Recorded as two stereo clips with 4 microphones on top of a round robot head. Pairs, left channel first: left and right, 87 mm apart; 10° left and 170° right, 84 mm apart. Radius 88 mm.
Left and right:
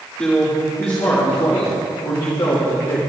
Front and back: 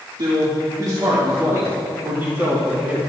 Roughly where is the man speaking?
Behind.